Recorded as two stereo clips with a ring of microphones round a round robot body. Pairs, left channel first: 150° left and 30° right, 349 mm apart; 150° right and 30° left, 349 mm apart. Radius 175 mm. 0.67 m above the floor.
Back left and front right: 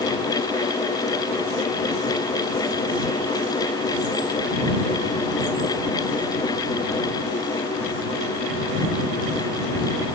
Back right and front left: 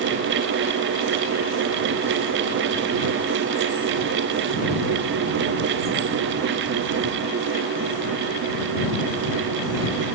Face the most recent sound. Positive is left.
No sound to turn to.